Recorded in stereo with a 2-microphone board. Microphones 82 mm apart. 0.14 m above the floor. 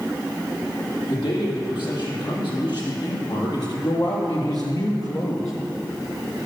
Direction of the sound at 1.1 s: 70° left (ahead or behind).